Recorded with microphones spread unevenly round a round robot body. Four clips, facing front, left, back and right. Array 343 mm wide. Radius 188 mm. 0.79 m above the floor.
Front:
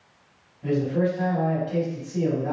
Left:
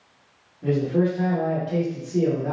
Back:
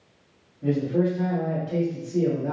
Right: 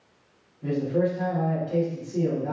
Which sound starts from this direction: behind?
A man speaking, at 0.6 s.